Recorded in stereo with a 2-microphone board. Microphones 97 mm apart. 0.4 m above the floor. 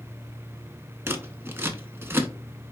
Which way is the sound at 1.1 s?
25° right (ahead or behind).